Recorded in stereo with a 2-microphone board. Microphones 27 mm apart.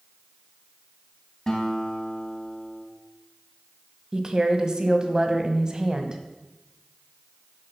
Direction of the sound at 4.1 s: 25° right (ahead or behind).